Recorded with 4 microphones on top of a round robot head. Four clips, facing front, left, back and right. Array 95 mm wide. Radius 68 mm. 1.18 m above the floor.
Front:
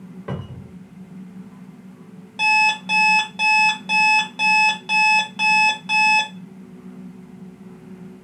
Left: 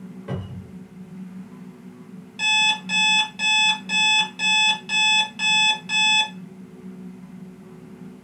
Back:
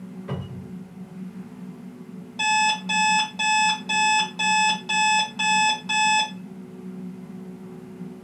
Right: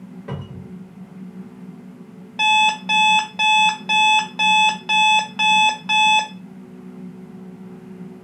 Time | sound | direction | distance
0.3 | a cupboard door | 15° right | 1.2 m
2.4 | an alarm clock | 75° right | 0.7 m